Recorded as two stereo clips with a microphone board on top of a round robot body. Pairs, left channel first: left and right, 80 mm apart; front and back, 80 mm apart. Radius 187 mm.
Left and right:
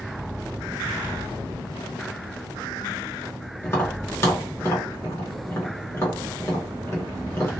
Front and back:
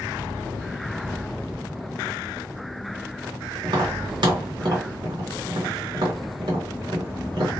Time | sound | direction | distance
3.6 | tapping | 150° left | 1.6 m